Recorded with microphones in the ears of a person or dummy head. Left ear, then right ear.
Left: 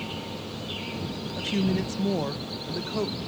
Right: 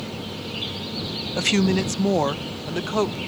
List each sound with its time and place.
1.4 s a woman speaking: 45° right (ahead or behind); by 3.2 s 35° right (ahead or behind)